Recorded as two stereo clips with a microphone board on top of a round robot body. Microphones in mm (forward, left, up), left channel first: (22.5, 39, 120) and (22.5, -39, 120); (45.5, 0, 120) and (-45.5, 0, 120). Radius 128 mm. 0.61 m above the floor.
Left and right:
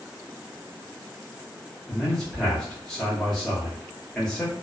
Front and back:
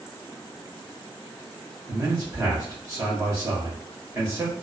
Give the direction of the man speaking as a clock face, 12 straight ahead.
6 o'clock.